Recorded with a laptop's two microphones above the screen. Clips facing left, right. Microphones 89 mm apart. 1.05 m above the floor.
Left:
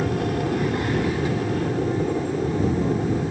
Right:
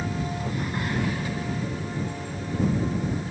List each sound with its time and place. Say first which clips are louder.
0.0 s an aircraft: left 7 dB; 65° left (ahead or behind)